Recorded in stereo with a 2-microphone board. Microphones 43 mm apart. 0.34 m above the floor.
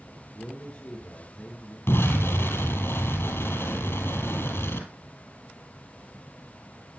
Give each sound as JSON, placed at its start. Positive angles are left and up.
{"t": 0.3, "sound": "a man speaking", "side_deg": 25, "distance_m": 4.5}
{"t": 1.9, "sound": "an explosion", "side_deg": 70, "distance_m": 2.5}